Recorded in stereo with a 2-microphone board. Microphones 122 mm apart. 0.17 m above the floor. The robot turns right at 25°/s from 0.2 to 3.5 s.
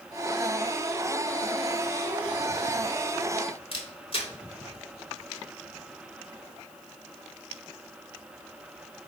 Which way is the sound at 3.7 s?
50° left (ahead or behind).